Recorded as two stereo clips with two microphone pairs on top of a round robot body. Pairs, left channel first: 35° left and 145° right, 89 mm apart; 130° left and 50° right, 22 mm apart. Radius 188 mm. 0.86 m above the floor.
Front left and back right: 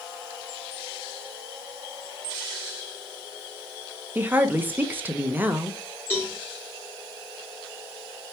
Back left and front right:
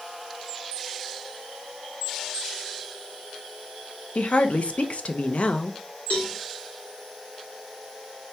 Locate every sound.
4.2 s a woman speaking: 150° left, 0.8 m
6.1 s a cowbell: 105° left, 2 m